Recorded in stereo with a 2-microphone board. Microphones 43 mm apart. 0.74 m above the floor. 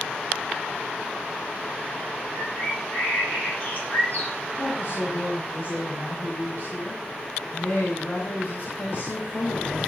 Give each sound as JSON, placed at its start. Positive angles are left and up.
{"t": 2.3, "sound": "a bird", "side_deg": 40, "distance_m": 9.5}
{"t": 4.6, "sound": "a woman speaking", "side_deg": 45, "distance_m": 5.0}